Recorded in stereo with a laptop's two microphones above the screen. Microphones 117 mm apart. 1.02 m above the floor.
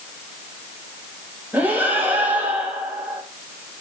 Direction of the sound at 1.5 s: 15° right (ahead or behind).